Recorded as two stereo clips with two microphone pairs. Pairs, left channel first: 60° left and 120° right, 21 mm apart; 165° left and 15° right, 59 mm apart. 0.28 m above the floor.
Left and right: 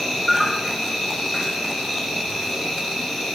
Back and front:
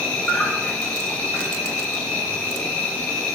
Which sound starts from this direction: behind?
An insect, at 0.0 s.